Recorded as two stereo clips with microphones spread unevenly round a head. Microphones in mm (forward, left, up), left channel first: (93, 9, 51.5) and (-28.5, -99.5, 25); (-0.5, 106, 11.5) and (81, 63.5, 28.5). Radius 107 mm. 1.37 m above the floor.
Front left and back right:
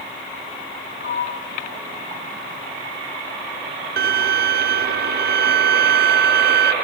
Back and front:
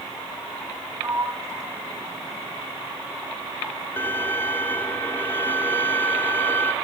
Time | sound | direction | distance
1.0 | a sliding door | 20° left | 2.5 m
4.0 | a violin | 125° right | 0.7 m